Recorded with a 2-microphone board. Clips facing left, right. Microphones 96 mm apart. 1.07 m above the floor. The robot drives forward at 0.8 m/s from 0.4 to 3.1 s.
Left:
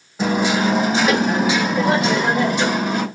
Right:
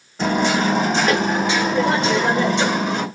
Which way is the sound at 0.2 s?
5° left (ahead or behind).